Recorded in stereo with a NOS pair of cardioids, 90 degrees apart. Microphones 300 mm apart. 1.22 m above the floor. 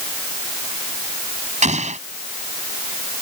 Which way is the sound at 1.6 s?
25° right.